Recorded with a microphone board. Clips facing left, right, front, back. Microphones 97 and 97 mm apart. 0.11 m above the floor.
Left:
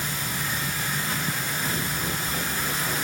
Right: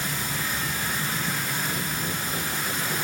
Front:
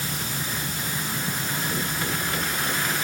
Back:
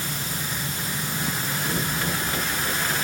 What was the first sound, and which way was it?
Only background noise.